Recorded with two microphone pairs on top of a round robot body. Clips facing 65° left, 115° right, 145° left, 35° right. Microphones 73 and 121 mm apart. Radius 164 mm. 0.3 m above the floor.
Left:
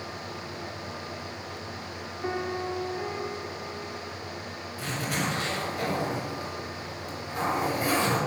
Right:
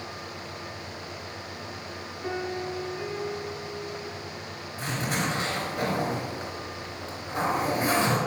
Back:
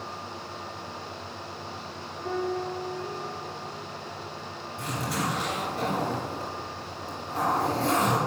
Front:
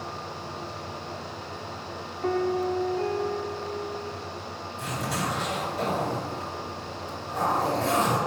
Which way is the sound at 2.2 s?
10° left.